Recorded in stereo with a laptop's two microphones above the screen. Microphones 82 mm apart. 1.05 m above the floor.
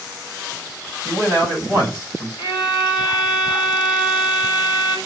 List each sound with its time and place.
1.1 s a man speaking: 45° left (ahead or behind), 5.5 m
2.4 s a violin: 70° left (ahead or behind), 2.5 m